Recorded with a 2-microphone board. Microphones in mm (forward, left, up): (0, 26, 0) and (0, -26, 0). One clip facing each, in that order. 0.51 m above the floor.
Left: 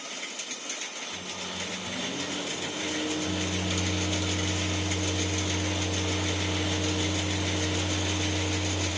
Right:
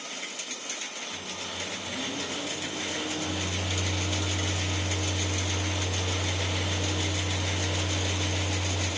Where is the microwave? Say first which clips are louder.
Even; 15° right (ahead or behind), 1.7 m.